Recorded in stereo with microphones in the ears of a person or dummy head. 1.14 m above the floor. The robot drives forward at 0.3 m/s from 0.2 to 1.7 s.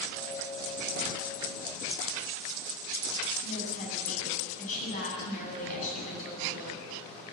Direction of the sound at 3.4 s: 40° left (ahead or behind).